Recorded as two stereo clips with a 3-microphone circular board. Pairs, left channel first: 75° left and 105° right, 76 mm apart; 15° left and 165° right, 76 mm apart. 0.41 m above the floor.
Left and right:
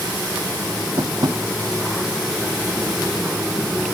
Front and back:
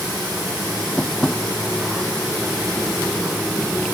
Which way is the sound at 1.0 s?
65° right.